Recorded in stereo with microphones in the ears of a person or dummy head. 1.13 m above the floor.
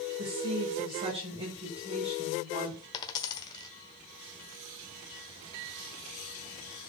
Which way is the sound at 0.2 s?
25° right (ahead or behind).